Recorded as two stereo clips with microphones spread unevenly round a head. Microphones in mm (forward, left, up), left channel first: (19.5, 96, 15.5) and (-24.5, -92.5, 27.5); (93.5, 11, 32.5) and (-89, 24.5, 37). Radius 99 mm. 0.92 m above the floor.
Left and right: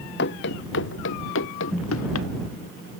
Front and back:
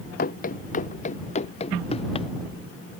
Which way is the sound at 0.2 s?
40° left.